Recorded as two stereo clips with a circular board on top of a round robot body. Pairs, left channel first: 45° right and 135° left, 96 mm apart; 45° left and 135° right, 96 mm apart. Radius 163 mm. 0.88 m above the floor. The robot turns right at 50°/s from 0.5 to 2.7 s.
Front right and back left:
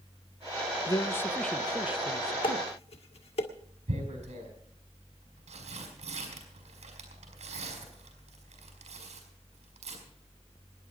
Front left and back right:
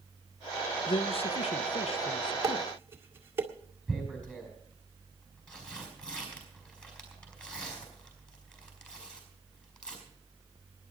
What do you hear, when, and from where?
0.9 s a man speaking: 5° left, 0.7 m; by 2.7 s 100° left, 0.7 m
2.4 s dishes clattering: 80° right, 2.0 m; by 3.5 s 65° right, 2.0 m
3.9 s tearing paper: 125° left, 5.5 m